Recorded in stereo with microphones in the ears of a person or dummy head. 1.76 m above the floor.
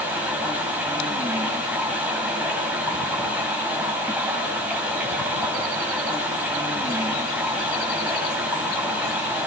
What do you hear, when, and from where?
0.0 s running water: 10° right (ahead or behind), 5.5 m